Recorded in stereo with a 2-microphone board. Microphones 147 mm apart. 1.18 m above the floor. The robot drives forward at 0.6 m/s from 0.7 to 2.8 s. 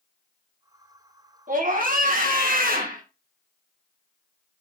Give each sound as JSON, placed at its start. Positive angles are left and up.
{"t": 1.5, "sound": "a scream", "side_deg": -65, "distance_m": 2.5}